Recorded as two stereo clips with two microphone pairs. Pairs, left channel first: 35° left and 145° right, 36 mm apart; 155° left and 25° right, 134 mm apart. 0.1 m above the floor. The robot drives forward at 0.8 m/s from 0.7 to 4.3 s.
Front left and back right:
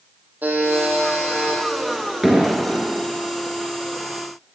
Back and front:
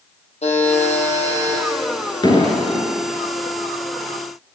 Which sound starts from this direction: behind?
A buzzer, at 0.4 s.